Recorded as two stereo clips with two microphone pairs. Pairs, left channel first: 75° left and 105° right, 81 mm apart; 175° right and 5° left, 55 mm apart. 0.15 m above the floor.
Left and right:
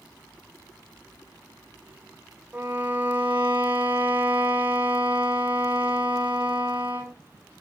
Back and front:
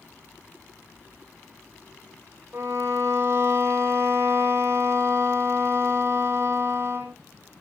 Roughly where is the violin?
Ahead right.